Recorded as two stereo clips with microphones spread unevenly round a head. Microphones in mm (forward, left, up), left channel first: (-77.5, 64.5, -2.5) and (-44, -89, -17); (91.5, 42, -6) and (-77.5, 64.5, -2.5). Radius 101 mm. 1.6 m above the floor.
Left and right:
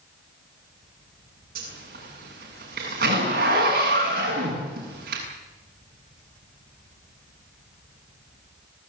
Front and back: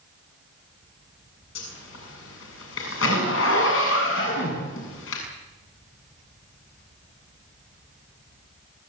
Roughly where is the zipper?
Ahead right.